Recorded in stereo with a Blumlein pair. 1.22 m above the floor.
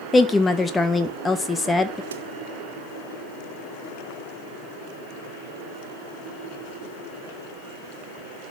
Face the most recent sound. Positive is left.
turn(degrees=-65)